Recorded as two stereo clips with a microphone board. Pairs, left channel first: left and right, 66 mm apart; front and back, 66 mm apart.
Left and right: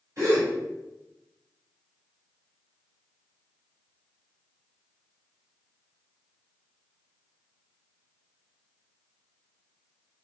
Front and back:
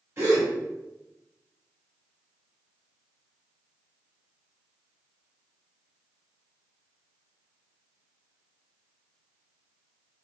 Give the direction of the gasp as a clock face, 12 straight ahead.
4 o'clock.